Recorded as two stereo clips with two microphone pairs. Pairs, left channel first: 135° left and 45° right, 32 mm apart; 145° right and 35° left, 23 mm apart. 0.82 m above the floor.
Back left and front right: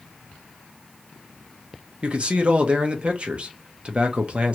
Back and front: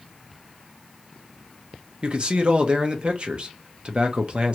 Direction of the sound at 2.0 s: Straight ahead.